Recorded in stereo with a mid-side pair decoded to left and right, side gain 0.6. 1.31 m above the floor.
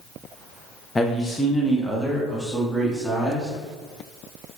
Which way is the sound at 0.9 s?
20° left.